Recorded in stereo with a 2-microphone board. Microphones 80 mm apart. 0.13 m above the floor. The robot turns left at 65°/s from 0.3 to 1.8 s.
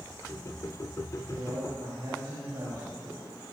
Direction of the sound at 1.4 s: 70° right (ahead or behind).